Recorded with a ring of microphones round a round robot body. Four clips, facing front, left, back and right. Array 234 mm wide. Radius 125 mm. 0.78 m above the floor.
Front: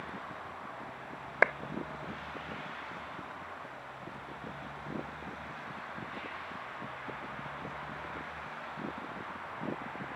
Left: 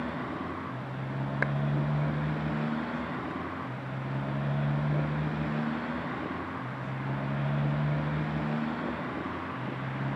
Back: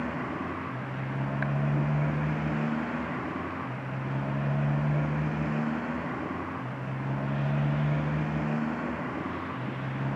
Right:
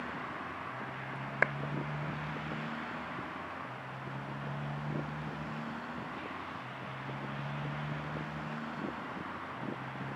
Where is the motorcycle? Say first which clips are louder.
Left 6 dB, back 10 dB; 145° left.